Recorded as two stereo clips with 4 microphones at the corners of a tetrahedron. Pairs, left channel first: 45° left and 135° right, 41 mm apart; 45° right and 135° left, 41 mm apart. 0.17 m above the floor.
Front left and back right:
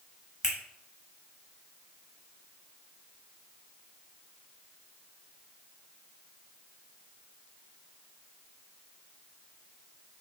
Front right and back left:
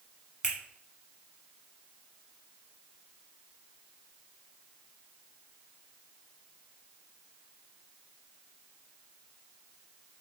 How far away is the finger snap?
About 1.1 m.